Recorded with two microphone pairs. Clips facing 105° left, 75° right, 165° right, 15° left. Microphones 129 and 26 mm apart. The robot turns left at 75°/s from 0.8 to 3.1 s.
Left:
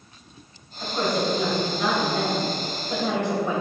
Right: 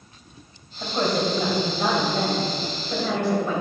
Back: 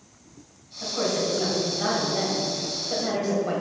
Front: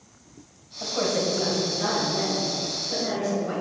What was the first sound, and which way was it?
A woman speaking, 20° right.